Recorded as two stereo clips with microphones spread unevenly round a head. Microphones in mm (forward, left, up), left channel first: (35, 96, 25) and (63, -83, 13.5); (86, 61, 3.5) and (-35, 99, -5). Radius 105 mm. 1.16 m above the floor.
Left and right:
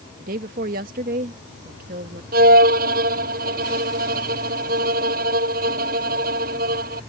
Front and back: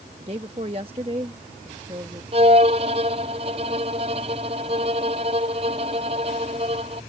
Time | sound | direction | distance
0.2 | a woman speaking | 130° right | ?
2.3 | a violin | 135° right | ?